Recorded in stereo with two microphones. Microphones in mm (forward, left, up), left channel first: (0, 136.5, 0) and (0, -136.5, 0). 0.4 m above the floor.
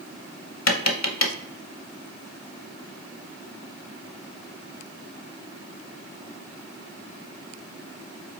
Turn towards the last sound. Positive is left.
turn(degrees=65)  # may be behind; listen again after turning